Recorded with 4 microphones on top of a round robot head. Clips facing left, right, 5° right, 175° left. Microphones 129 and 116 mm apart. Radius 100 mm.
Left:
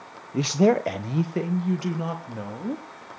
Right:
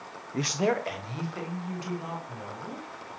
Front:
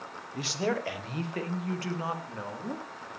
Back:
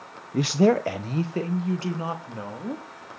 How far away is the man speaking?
About 0.9 m.